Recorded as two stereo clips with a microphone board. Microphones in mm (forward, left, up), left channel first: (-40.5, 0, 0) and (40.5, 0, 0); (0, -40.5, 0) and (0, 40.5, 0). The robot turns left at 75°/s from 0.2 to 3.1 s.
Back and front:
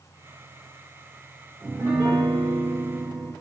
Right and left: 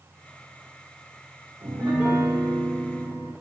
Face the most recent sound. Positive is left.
turn(degrees=-45)